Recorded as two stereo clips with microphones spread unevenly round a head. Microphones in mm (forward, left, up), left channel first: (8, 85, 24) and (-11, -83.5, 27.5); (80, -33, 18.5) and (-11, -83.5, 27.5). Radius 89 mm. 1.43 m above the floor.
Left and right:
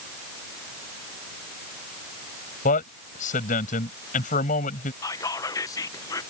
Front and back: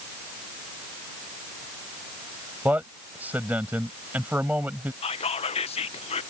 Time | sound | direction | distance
2.6 | a man speaking | 130° left | ?
5.0 | whispering | 15° left | ?